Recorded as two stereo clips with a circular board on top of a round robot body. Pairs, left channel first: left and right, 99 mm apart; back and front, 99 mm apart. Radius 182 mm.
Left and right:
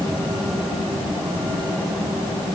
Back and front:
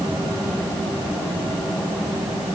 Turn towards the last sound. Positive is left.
No sound to turn to.